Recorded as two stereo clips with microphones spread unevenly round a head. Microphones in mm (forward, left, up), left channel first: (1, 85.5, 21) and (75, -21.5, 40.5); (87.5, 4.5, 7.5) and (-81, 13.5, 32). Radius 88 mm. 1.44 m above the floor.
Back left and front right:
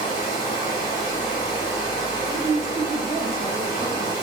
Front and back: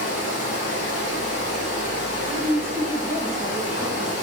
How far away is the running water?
About 1.7 m.